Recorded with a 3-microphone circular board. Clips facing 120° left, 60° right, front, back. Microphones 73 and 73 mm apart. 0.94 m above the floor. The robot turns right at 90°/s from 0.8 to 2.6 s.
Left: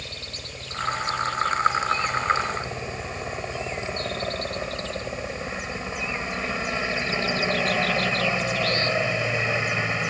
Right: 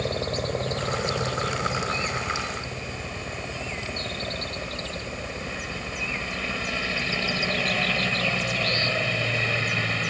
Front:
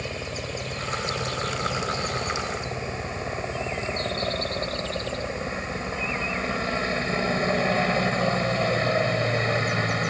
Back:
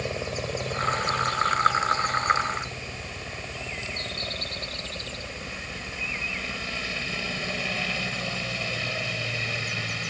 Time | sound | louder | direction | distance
0.0 | a helicopter | right 12 dB, back 2 dB | 100° right | ?